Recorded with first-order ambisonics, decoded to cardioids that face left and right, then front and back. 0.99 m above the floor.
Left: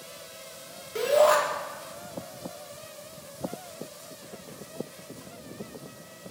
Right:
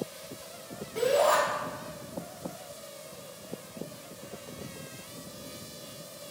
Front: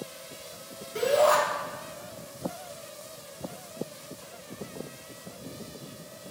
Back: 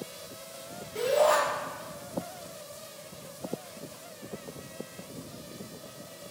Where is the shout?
75° left, 1.9 m.